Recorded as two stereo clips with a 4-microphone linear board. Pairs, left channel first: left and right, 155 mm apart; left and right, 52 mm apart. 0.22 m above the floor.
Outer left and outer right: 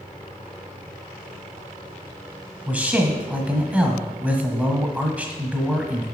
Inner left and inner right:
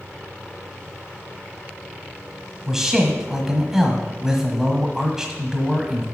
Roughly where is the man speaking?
Centre.